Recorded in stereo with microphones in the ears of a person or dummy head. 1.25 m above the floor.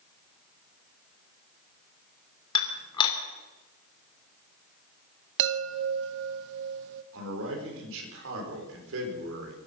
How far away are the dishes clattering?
About 3 m.